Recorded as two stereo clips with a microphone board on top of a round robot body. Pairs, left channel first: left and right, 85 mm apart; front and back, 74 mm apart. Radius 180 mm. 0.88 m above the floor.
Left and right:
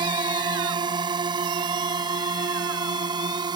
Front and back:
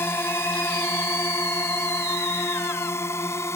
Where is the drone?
60° right; by 3.6 s 55° right.